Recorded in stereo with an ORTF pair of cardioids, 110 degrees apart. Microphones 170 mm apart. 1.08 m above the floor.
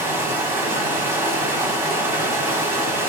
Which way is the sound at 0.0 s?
15° right.